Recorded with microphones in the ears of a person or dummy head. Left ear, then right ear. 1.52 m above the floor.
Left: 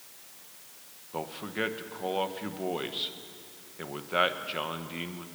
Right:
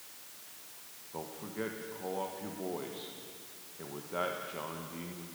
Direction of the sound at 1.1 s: 75° left (ahead or behind).